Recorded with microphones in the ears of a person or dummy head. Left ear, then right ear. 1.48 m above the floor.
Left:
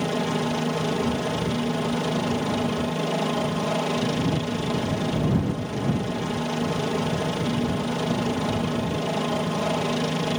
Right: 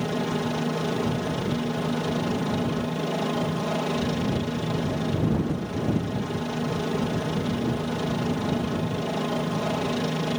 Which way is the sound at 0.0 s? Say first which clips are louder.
Left 2 dB; 10° left (ahead or behind).